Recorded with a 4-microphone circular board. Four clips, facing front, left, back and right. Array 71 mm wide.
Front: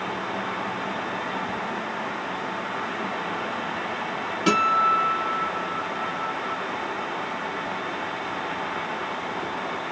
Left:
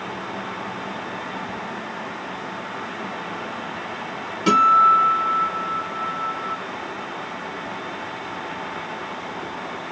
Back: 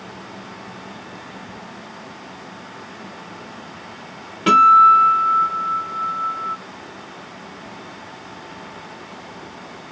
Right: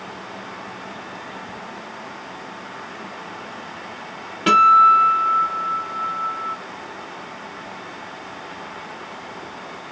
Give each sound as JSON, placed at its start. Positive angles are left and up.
{"t": 4.5, "sound": "a guitar", "azimuth_deg": -120, "distance_m": 1.2}